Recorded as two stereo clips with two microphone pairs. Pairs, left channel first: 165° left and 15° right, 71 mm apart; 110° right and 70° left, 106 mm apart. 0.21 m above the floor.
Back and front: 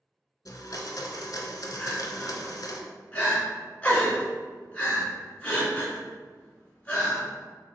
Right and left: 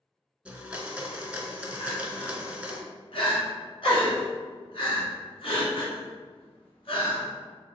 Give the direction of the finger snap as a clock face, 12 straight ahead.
No finger snap in this recording.